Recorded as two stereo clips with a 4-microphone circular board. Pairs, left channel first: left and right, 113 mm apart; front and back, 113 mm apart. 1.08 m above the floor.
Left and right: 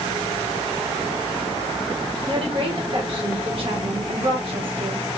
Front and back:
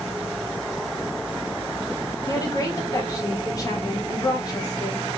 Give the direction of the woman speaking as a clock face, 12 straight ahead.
2 o'clock.